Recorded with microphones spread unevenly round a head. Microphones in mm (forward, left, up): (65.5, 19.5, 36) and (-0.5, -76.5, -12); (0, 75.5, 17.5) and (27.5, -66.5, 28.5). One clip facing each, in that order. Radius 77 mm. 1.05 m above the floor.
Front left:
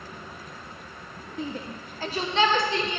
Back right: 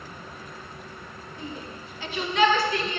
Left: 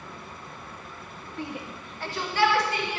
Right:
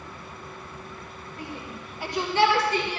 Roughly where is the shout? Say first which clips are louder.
Front left 5 dB, left 2 dB; ahead left.